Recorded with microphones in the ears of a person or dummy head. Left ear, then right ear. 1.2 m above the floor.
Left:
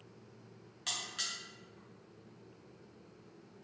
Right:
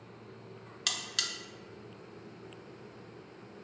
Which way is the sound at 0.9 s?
25° right (ahead or behind).